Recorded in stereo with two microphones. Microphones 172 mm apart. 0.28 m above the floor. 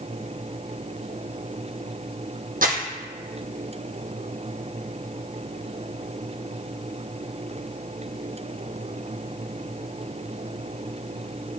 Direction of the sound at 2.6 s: 60° right (ahead or behind).